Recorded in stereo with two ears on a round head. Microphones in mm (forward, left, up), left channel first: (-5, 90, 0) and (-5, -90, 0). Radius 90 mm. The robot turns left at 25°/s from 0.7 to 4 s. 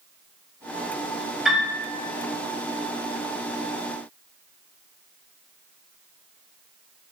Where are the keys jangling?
I don't hear keys jangling.